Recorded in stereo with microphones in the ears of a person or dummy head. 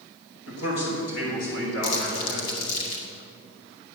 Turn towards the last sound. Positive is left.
turn(degrees=85)